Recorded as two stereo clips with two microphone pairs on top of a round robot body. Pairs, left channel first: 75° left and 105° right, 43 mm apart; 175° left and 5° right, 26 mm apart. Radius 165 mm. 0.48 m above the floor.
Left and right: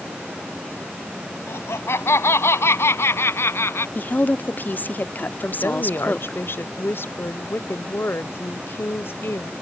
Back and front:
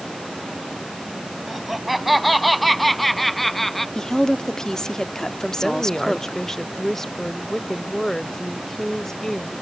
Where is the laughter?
80° left; by 3.9 s 95° left.